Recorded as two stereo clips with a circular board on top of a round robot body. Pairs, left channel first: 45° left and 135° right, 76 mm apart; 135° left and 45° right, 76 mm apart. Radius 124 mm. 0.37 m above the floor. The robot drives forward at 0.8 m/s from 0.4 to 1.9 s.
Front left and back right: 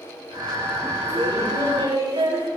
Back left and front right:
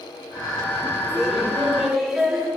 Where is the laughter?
125° right, 6.5 m; by 2.5 s 130° right, 7 m.